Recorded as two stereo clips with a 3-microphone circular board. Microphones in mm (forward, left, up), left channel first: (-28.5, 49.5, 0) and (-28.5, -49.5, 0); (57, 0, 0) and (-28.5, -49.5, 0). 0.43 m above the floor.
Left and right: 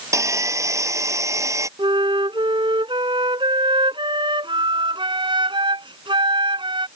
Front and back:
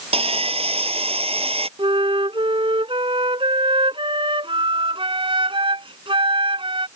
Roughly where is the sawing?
Behind right.